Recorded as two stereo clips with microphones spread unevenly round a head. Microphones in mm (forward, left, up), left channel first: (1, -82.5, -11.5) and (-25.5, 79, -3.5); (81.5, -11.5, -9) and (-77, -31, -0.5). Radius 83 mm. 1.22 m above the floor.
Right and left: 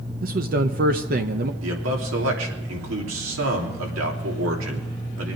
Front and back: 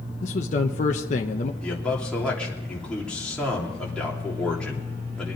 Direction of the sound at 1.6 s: 90° left.